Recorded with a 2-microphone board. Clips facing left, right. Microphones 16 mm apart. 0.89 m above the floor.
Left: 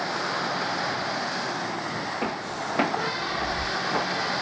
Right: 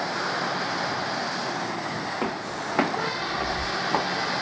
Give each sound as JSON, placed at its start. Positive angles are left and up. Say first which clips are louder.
{"t": 2.2, "sound": "footsteps", "louder": "even", "side_deg": -55, "distance_m": 2.0}